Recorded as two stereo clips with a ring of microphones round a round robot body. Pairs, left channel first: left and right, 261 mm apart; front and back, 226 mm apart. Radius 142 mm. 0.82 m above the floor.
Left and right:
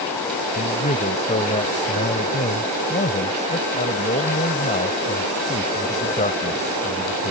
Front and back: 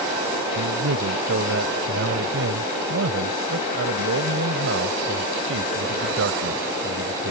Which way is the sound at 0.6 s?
155° left.